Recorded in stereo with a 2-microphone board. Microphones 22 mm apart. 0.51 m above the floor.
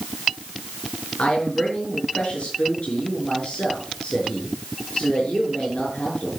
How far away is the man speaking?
About 6 m.